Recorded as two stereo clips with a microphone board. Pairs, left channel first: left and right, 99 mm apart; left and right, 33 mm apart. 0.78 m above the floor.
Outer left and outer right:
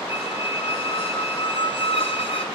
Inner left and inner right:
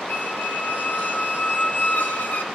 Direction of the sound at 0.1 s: 75° left (ahead or behind).